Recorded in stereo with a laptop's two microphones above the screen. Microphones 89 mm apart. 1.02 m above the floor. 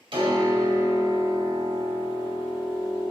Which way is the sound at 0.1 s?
70° right (ahead or behind).